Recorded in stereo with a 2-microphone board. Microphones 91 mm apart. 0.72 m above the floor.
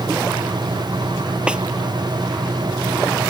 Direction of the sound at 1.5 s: 10° right (ahead or behind).